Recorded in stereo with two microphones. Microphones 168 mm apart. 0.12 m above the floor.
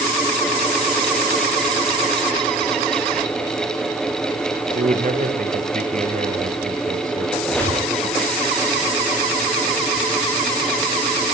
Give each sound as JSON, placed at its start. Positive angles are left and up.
{"t": 4.8, "sound": "a man speaking", "side_deg": -55, "distance_m": 2.5}
{"t": 7.4, "sound": "a squeak", "side_deg": 10, "distance_m": 8.5}